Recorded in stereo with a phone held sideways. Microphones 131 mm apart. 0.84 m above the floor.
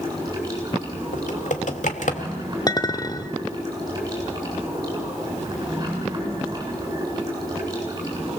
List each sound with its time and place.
0.0 s running water: 30° right (ahead or behind), 8.5 m
1.1 s typing on a keyboard: 75° left (ahead or behind), 1.9 m
2.7 s a clink: 30° left (ahead or behind), 1.1 m